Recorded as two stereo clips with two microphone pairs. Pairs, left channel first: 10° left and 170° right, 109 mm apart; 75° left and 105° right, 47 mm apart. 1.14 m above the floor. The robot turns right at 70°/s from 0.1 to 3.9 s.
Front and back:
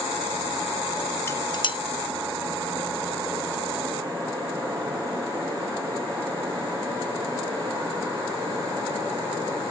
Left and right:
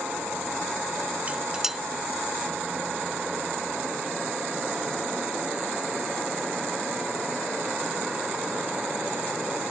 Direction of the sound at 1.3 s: 50° right.